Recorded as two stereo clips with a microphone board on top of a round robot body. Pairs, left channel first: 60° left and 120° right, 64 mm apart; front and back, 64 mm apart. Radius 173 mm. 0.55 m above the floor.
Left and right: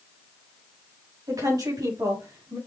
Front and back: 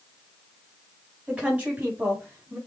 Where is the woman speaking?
110° right, 4 m; by 2.6 s 125° right, 4.5 m.